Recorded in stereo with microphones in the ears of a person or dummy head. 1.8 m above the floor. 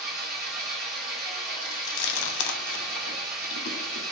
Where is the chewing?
65° left (ahead or behind), 0.7 m.